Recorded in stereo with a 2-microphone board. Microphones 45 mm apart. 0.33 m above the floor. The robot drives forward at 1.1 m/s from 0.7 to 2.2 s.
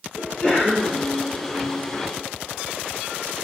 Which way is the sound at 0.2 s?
15° left (ahead or behind).